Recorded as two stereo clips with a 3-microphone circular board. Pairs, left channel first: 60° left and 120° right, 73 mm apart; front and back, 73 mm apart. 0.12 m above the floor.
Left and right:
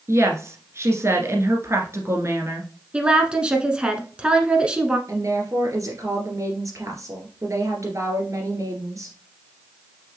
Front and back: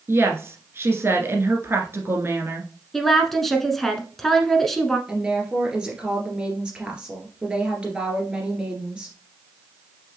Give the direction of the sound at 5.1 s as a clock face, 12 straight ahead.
4 o'clock.